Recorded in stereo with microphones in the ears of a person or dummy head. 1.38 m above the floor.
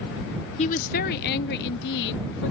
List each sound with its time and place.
0.6 s a woman speaking: 30° left (ahead or behind); by 2.5 s 60° left (ahead or behind)